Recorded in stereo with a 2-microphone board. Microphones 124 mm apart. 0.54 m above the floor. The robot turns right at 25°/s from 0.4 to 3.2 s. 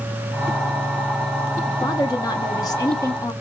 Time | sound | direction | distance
1.7 | a woman speaking | 85° left | 0.7 m